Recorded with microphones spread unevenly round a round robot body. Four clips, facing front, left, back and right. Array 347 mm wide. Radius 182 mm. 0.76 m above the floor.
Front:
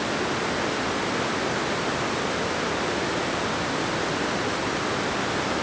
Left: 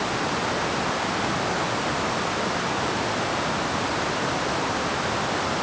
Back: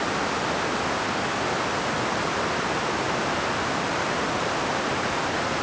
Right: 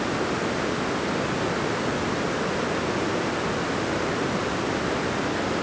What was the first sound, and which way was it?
Only background noise.